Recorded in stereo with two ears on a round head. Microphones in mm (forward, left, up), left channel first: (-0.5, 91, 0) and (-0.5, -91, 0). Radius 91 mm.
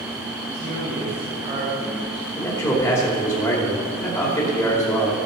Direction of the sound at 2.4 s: 15° left (ahead or behind).